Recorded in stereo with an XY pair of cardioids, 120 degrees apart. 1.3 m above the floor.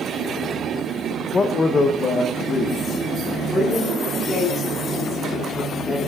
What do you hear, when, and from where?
1.3 s a man speaking: 30° left, 0.6 m; by 3.3 s 45° left, 2.5 m
3.5 s a woman speaking: 25° left, 3 m